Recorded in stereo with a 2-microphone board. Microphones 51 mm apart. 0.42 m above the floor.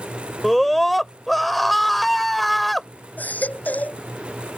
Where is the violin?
I don't hear a violin.